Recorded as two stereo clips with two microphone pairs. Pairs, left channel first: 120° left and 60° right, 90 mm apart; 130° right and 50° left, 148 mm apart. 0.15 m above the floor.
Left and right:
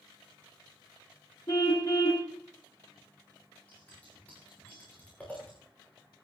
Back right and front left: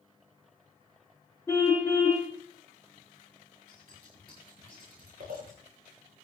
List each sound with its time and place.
1.5 s a car horn: 160° left, 5 m
3.7 s scissors: 45° left, 9 m